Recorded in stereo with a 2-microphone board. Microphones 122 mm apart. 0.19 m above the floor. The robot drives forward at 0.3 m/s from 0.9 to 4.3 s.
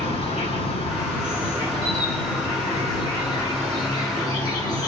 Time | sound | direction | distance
0.0 | an insect | 55° left (ahead or behind) | 1.5 m